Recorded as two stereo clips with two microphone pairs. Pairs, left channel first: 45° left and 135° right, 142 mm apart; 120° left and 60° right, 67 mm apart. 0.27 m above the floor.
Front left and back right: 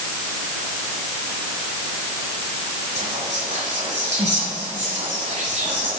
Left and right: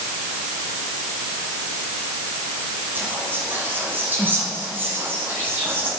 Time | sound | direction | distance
3.0 | whispering | 115° right | 1.6 m